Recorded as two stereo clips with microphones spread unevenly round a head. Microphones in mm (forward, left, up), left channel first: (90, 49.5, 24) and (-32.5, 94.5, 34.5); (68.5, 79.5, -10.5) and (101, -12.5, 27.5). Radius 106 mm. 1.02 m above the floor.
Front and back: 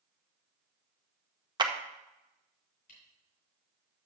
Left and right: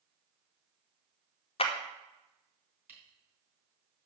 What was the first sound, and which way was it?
A clap, 105° left.